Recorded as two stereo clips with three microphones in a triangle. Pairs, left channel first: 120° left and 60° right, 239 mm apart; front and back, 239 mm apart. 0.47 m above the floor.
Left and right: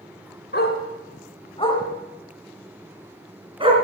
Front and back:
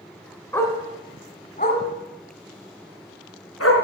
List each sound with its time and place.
0.5 s a dog barking: 80° left, 1.6 m; by 3.7 s 5° left, 1.9 m